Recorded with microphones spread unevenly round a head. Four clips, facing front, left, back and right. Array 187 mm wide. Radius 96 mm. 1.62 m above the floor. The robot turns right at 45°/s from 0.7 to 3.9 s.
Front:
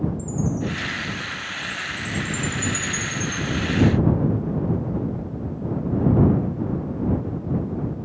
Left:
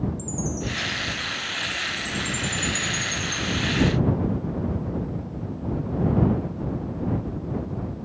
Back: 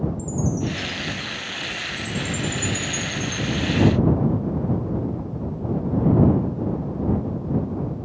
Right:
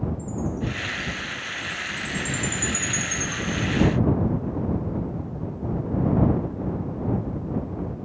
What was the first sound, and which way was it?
A chime, 125° left.